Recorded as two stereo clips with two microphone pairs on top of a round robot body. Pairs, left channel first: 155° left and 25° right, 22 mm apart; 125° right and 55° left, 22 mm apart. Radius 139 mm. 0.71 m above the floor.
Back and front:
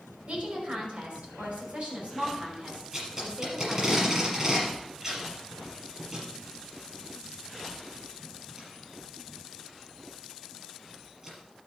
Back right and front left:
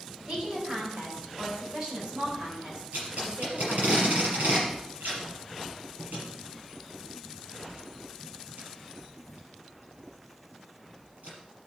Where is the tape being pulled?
40° left, 5 m.